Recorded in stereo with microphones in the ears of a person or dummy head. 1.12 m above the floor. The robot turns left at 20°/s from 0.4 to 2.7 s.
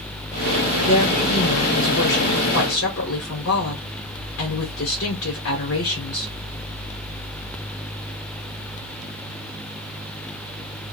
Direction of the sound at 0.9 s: 125° left.